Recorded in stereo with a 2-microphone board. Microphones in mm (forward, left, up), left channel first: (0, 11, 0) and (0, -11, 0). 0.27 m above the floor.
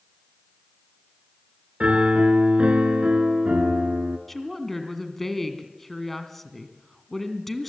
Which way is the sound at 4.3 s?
10° left (ahead or behind).